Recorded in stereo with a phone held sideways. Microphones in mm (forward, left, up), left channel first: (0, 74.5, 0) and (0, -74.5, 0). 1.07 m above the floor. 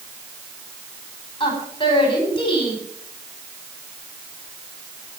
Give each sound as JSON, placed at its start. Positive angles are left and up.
{"t": 1.4, "sound": "a woman speaking", "side_deg": 35, "distance_m": 5.0}